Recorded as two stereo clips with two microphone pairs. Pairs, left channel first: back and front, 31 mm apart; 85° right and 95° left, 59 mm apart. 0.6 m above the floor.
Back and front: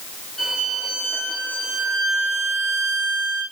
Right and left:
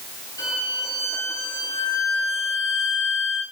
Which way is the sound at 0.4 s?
110° right.